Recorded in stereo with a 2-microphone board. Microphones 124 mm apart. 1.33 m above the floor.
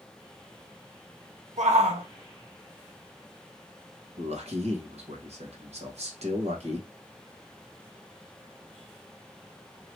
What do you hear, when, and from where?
1.6 s a shout: 65° right (ahead or behind), 0.9 m
4.2 s a man speaking: 60° right (ahead or behind), 1.3 m